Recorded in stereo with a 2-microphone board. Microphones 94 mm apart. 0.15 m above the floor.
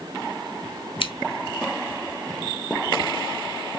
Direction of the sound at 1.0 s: 65° left (ahead or behind).